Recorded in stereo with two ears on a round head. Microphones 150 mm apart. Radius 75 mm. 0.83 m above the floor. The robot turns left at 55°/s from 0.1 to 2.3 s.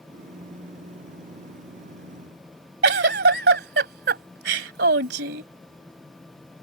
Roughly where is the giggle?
Right.